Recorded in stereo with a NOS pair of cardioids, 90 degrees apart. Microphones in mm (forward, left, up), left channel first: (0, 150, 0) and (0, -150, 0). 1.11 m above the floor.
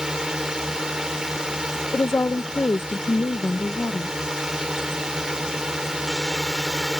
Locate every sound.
0.0 s a drone: straight ahead
1.9 s a woman speaking: 10° left